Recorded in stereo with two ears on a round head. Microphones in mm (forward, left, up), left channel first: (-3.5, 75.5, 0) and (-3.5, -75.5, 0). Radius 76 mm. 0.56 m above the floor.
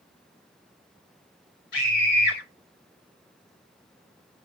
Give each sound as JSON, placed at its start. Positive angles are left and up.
{"t": 1.7, "sound": "a scream", "side_deg": 70, "distance_m": 3.0}